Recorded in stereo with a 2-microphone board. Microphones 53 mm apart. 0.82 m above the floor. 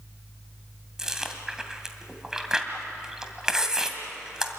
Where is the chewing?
10° right (ahead or behind), 2 m.